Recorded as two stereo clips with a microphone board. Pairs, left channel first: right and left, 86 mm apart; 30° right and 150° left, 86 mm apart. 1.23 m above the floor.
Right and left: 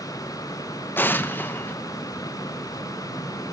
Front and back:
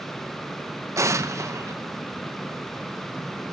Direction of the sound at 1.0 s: 155° right.